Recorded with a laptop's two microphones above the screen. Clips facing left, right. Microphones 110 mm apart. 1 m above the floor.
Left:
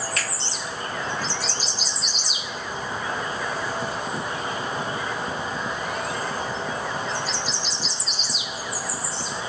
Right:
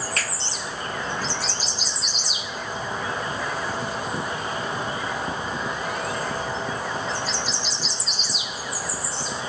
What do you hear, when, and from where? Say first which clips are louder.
0.2 s a finger snap: even; 45° right (ahead or behind), 2 m